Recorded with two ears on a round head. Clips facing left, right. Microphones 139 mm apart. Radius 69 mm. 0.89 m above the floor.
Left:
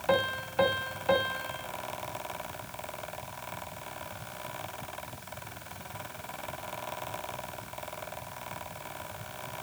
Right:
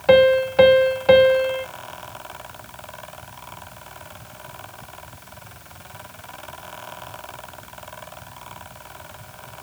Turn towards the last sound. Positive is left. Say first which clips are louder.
# right 16 dB
turn(degrees=-75)  # may be behind; listen again after turning